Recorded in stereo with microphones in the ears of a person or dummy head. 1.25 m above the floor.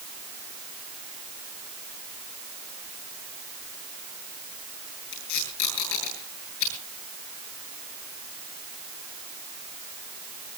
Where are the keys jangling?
No keys jangling in this recording.